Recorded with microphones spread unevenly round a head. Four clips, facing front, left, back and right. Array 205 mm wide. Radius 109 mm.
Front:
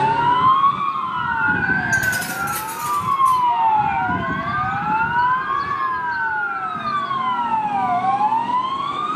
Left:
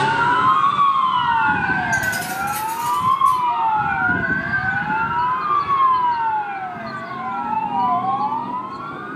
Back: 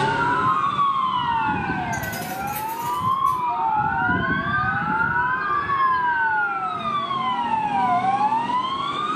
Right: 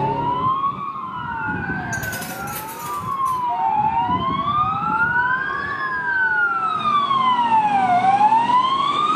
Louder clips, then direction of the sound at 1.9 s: Left 6 dB, front 6 dB; 10° right.